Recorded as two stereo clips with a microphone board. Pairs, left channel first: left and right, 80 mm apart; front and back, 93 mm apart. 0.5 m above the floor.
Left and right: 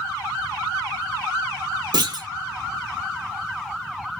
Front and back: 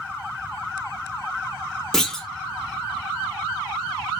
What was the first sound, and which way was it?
A clunk, 85° right.